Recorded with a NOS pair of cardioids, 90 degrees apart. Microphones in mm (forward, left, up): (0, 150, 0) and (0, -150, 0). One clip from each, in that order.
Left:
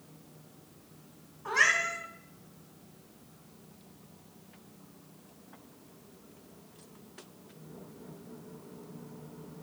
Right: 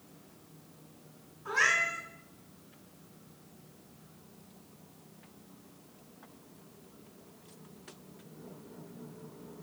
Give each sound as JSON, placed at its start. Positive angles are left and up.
{"t": 1.4, "sound": "a cat meowing", "azimuth_deg": 65, "distance_m": 2.5}